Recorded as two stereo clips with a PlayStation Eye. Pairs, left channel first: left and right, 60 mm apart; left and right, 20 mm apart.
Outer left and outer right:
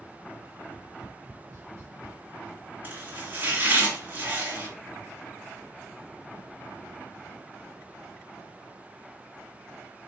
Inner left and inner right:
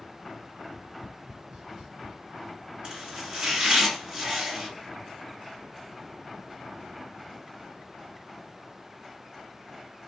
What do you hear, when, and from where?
0.6 s tapping: 55° right (ahead or behind), 1.1 m
2.8 s chopping: 35° right (ahead or behind), 2.0 m